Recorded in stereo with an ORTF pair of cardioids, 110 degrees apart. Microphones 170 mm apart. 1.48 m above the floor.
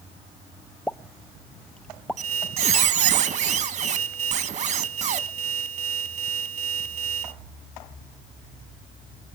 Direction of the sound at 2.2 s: 45° right.